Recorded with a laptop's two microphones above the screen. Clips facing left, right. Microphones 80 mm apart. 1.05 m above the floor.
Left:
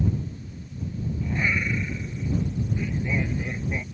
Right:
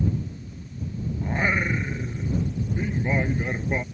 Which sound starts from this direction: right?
Singing, at 1.2 s.